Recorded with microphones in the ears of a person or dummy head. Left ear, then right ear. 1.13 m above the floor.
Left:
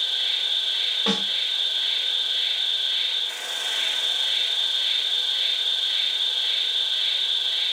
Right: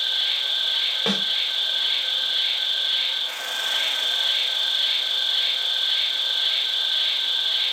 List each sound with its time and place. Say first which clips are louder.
0.0 s an insect: right 1 dB; 40° right (ahead or behind), 0.8 m
1.1 s a snare drum: even; 55° right (ahead or behind), 1.4 m